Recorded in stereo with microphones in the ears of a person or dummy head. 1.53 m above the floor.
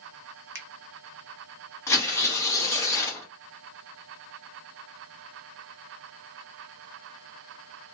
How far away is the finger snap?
About 0.7 m.